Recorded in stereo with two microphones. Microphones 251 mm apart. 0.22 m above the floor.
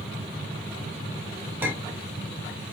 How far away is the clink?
About 1.0 m.